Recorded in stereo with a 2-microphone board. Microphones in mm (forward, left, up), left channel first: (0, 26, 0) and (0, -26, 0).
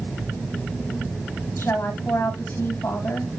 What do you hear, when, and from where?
1.6 s a woman speaking: 55° left (ahead or behind), 6.5 m